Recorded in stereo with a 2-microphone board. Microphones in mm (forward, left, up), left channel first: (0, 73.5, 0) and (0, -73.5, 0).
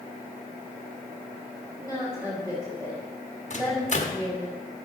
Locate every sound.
1.8 s a woman speaking: 15° right (ahead or behind), 2.5 m
3.5 s a microwave: 50° left (ahead or behind), 1.3 m